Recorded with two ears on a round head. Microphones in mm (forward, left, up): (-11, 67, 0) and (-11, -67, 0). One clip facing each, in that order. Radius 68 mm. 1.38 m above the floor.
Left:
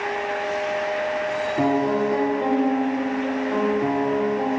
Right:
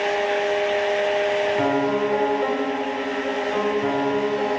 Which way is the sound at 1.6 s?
60° left (ahead or behind).